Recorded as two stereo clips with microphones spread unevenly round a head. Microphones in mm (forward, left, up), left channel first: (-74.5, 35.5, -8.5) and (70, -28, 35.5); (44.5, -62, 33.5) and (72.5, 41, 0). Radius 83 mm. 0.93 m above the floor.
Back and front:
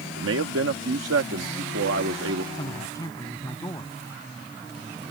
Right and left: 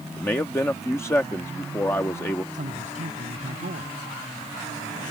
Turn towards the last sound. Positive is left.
turn(degrees=85)